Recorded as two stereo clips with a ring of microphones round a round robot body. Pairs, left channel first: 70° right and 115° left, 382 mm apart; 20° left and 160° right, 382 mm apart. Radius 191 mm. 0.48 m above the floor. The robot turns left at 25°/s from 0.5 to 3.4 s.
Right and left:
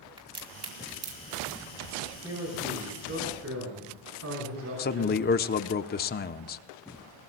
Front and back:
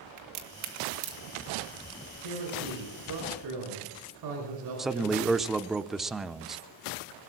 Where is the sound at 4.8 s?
70° right, 0.7 m.